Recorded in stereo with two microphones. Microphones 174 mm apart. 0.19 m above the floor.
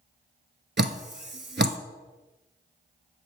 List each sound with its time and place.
0.8 s dripping: 75° right (ahead or behind), 0.6 m